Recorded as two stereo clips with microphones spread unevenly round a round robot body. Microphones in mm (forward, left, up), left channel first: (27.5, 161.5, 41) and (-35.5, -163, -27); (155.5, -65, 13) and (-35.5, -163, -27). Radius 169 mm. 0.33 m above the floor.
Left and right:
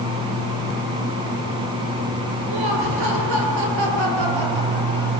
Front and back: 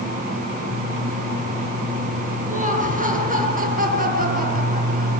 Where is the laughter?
100° right, 6.5 m; by 5.1 s 105° right, 8.5 m.